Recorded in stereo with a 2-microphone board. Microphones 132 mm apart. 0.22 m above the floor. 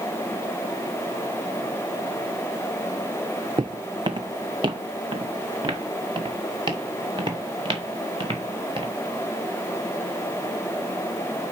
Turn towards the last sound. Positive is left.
turn(degrees=-40)  # may be behind; listen again after turning